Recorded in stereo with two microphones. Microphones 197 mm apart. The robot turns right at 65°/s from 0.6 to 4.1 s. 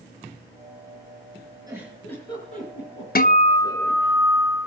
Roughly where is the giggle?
Centre.